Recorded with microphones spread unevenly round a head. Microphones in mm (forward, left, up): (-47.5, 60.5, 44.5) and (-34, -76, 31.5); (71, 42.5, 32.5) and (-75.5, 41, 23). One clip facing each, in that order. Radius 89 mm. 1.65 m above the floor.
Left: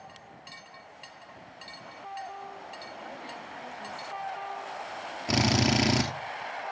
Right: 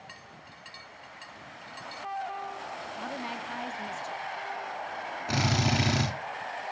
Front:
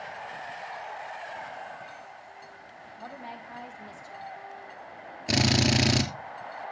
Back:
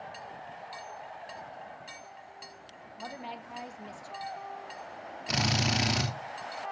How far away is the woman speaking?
About 1.3 m.